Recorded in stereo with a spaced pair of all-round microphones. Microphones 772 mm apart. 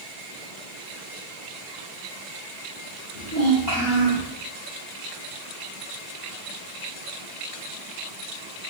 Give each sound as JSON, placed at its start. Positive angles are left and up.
{"t": 3.1, "sound": "a child speaking", "side_deg": -80, "distance_m": 4.0}